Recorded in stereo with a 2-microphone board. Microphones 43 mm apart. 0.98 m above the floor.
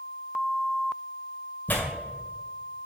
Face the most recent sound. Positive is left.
turn(degrees=40)  # may be behind; listen again after turning